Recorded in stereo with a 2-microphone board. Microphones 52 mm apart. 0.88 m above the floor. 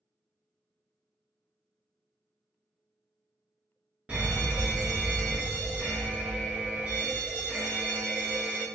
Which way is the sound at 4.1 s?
25° right (ahead or behind).